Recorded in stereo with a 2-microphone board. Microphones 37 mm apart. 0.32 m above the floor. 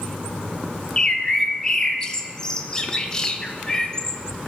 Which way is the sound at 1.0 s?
20° left (ahead or behind).